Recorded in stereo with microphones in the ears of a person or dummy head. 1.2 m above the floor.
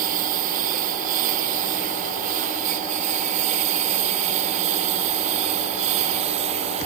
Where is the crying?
No crying in this recording.